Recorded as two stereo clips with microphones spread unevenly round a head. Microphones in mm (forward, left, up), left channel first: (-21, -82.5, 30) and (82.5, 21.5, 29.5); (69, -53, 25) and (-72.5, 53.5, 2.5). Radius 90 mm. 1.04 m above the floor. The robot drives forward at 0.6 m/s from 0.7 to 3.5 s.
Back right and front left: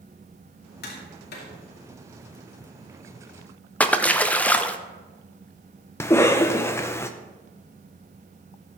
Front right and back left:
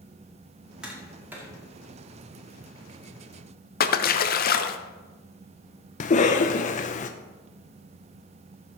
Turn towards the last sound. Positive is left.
turn(degrees=-70)